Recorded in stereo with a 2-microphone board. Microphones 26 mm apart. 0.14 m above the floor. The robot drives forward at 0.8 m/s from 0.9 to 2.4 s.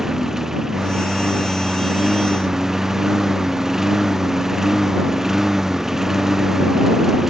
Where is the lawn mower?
20° right (ahead or behind).